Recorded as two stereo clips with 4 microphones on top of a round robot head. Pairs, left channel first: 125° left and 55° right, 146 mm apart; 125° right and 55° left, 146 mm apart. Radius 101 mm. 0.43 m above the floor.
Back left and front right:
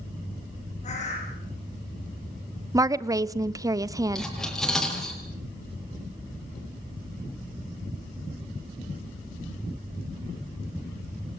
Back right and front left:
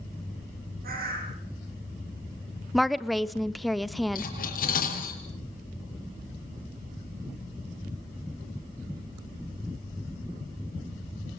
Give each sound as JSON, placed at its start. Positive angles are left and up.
{"t": 0.8, "sound": "a bird", "azimuth_deg": 80, "distance_m": 8.5}
{"t": 2.7, "sound": "a woman speaking", "azimuth_deg": -35, "distance_m": 0.8}
{"t": 4.2, "sound": "cutlery clinking", "azimuth_deg": -150, "distance_m": 6.5}